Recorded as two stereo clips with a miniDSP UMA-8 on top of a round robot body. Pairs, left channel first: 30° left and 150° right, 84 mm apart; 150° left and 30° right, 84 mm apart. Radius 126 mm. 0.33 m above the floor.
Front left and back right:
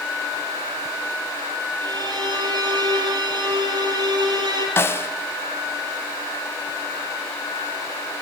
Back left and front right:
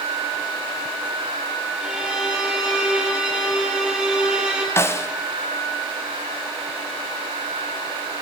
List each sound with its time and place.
1.8 s a violin: 110° right, 5 m
4.8 s a snare drum: 90° left, 1.5 m